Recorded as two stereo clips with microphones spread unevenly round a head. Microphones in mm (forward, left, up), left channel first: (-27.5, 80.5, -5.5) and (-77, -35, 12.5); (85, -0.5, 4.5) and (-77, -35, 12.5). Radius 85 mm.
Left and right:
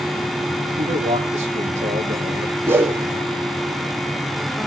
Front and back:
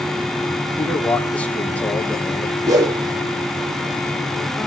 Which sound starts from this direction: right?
A man speaking, at 0.8 s.